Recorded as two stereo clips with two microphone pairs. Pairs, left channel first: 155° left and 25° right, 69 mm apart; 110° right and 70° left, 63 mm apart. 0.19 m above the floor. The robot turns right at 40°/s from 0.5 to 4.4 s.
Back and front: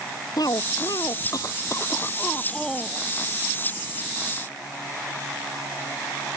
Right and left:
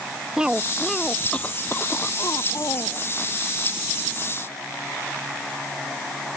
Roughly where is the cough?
Behind left.